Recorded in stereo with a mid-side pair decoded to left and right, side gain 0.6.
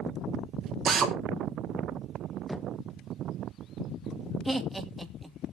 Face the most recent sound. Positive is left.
turn(degrees=-5)